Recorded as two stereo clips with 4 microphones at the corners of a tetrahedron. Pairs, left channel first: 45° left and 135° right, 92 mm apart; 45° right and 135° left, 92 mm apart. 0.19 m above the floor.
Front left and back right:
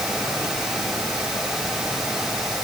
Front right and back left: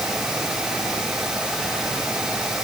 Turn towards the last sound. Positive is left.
No sound to turn to.